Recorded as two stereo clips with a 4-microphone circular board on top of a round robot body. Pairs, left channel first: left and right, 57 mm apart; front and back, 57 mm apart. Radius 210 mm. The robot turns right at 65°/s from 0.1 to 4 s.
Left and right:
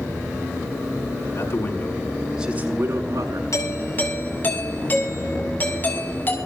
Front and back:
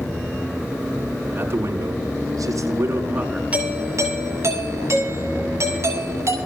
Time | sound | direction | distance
1.4 | a man speaking | 120° left | 7 m
3.5 | a doorbell | 115° left | 7 m